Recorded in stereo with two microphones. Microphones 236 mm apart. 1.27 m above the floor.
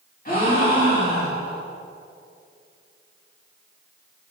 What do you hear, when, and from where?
0.2 s a gasp: 40° left (ahead or behind), 2.5 m